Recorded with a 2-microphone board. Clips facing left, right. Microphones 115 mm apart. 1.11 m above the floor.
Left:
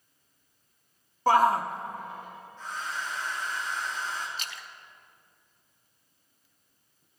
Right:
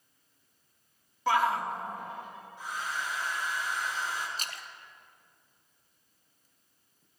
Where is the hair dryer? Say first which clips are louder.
Even; 10° right (ahead or behind), 6 m.